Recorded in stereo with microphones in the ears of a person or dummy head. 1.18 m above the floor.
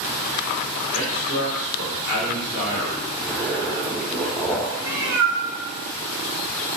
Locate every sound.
0.9 s a man speaking: 15° right (ahead or behind), 0.9 m
3.2 s a zipper: 5° left (ahead or behind), 0.5 m
4.8 s a cat meowing: 15° right (ahead or behind), 1.3 m